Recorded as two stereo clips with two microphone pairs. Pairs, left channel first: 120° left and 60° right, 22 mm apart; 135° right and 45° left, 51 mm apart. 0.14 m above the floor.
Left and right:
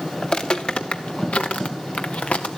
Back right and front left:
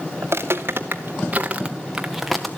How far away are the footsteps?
About 1.4 m.